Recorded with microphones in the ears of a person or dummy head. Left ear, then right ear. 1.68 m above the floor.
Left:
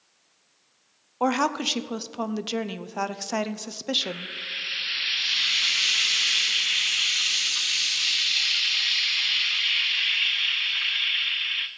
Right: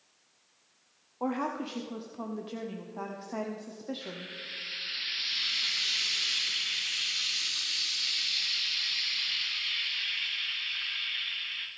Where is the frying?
35° left (ahead or behind), 0.6 m.